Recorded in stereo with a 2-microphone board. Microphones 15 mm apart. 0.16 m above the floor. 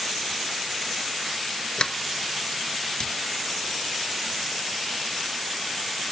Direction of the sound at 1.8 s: 55° left (ahead or behind).